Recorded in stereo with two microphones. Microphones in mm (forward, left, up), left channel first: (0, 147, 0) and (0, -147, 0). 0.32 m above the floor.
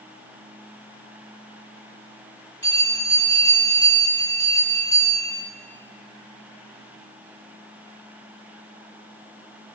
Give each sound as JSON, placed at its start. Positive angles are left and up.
{"t": 2.6, "sound": "a bell", "side_deg": -55, "distance_m": 1.9}